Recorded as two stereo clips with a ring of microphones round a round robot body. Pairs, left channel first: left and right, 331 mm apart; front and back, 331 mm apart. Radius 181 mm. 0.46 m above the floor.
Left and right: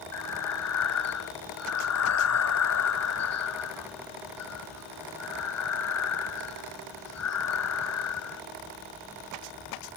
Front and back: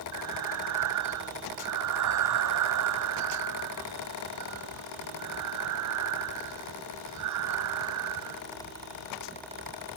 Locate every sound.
0.1 s breathing: 130° left